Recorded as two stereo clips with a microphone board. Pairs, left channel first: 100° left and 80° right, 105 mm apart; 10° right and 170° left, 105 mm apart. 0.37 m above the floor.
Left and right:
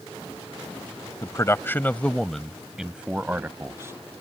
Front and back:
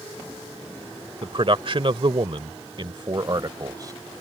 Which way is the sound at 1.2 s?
150° left.